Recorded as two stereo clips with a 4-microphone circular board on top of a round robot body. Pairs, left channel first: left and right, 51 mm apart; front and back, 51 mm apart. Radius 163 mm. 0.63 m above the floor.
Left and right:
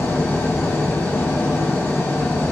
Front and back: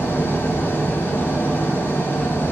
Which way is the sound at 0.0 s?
55° left.